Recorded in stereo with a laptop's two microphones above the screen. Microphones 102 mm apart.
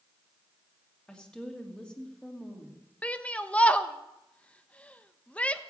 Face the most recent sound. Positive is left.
turn(degrees=10)  # may be behind; listen again after turning